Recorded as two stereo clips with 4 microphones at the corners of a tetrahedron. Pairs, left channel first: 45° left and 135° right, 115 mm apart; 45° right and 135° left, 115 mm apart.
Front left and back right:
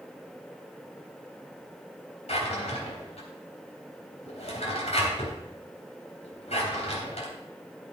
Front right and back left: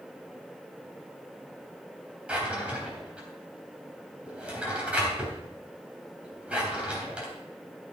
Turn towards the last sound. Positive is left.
turn(degrees=55)